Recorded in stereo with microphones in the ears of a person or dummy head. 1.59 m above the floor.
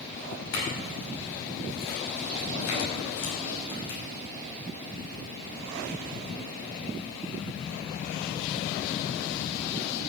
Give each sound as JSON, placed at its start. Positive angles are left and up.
{"t": 0.5, "sound": "a clink", "side_deg": 80, "distance_m": 6.0}